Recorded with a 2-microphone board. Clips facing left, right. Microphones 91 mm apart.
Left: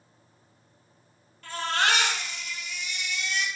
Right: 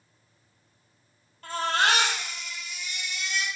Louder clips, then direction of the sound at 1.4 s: Right 2 dB; 40° right (ahead or behind).